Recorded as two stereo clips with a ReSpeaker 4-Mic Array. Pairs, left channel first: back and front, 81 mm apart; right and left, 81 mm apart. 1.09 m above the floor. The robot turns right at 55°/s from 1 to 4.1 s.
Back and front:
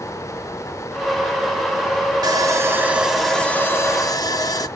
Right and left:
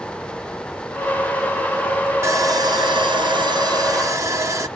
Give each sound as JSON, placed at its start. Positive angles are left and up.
{"t": 2.2, "sound": "sawing", "azimuth_deg": 35, "distance_m": 0.6}